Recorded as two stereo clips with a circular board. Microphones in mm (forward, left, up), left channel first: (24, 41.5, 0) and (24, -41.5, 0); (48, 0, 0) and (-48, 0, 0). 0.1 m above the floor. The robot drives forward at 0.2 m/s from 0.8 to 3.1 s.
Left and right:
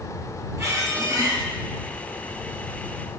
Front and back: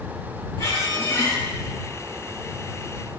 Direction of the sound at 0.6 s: 45° right.